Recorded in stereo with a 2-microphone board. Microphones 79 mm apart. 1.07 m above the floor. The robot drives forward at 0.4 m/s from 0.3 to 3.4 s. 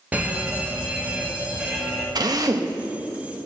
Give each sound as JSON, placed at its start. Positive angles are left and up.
{"t": 0.1, "sound": "a fire alarm", "side_deg": -20, "distance_m": 1.7}
{"t": 2.1, "sound": "a drill", "side_deg": -55, "distance_m": 0.8}